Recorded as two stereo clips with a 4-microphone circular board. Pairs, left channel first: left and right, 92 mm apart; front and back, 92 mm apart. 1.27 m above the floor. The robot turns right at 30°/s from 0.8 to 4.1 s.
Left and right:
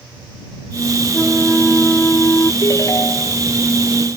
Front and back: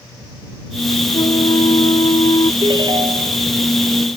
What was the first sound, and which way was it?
A flute, 15° right.